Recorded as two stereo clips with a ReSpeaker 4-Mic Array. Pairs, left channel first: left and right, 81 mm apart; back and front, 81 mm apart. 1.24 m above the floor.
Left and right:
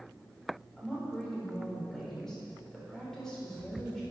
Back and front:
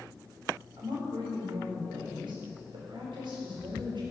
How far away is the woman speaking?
About 4.5 m.